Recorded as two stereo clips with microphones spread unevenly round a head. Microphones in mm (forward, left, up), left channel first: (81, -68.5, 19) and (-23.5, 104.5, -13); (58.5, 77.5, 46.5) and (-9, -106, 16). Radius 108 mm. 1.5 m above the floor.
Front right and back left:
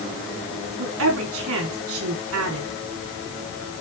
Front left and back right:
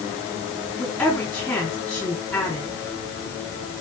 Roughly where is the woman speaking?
Behind left.